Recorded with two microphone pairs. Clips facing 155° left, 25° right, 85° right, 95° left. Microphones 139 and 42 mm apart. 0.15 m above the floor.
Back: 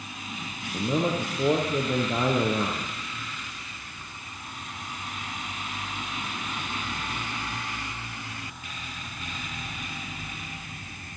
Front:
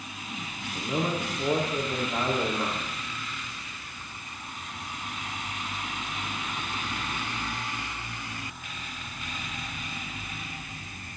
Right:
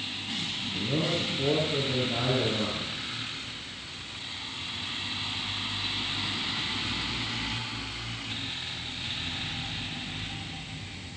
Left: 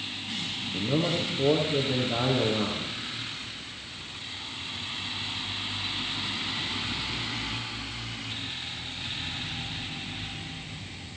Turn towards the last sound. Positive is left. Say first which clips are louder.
# back 3 dB, left 2 dB
turn(degrees=160)